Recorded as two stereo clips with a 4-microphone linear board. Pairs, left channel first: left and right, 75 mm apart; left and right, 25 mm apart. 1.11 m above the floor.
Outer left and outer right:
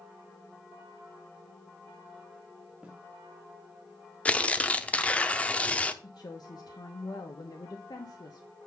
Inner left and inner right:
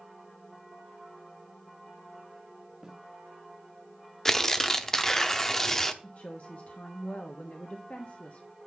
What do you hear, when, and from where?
2.8 s a snare drum: 15° right (ahead or behind), 1.5 m
4.2 s tearing paper: 15° left (ahead or behind), 0.7 m
6.0 s a woman speaking: 60° left (ahead or behind), 1.3 m